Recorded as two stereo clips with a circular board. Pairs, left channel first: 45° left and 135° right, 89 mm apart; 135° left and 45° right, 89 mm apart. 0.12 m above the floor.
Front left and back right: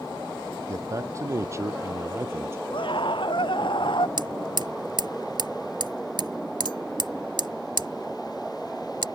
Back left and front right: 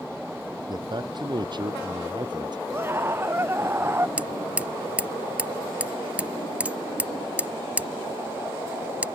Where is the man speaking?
80° right; by 2.6 s 75° right.